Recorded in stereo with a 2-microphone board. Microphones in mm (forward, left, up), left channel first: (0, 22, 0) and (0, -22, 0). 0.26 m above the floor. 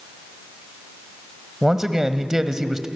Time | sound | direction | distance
1.6 | a man speaking | 10° right (ahead or behind) | 1.3 m